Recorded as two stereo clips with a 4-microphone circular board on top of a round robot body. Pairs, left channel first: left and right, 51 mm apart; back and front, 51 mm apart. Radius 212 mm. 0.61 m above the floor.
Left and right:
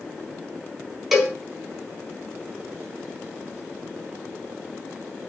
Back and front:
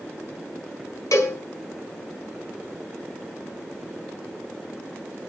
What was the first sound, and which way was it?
A cowbell, straight behind.